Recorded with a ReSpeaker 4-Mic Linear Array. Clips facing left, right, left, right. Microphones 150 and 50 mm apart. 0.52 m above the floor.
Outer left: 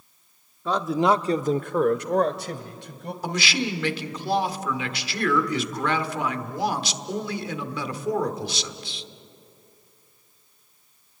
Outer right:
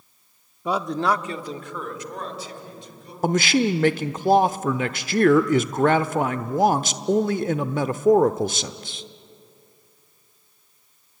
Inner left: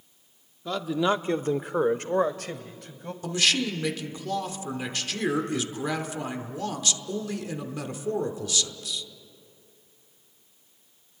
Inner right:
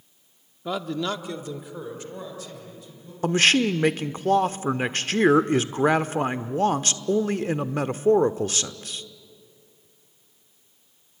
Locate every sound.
0.7 s a man speaking: 15° right (ahead or behind), 0.8 m; by 3.1 s 75° left (ahead or behind), 3 m
3.2 s a man speaking: 45° right (ahead or behind), 1.0 m